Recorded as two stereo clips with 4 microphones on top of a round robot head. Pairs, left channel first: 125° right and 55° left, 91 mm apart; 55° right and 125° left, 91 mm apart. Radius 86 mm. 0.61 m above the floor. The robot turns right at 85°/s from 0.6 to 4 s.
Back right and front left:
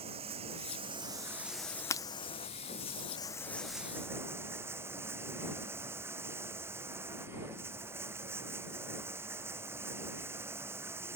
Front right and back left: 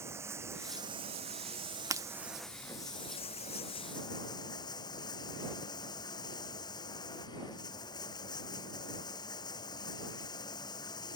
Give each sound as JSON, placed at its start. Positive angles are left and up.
{"t": 0.0, "sound": "running water", "azimuth_deg": 60}
{"t": 1.9, "sound": "breaking glass", "azimuth_deg": 180}